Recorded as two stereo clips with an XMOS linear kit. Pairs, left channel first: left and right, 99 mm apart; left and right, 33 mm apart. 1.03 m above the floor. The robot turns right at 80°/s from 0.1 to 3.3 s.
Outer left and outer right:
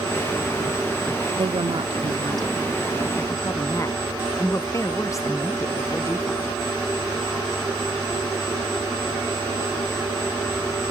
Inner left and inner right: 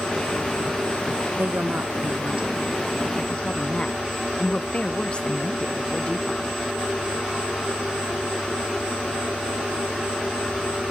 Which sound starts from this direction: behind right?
A woman speaking, at 1.4 s.